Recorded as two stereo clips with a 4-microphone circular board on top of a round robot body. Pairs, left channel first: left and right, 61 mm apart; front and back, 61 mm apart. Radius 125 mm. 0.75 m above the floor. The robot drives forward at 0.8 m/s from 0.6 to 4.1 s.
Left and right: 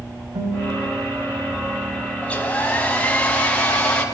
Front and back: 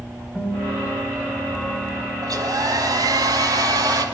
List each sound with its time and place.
0.3 s a guitar: 85° right, 5 m; by 2.4 s 100° right, 5 m
2.2 s a hair dryer: 160° left, 5 m; by 4.0 s 165° left, 6.5 m